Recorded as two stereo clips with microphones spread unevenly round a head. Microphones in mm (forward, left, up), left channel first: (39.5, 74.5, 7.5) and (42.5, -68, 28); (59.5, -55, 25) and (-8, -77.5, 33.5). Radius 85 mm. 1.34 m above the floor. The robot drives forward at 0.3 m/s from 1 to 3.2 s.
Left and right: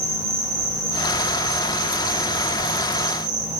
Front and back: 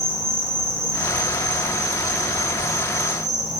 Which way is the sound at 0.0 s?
110° right.